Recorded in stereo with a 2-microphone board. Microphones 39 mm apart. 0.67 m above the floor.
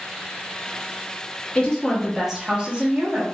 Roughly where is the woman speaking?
Left.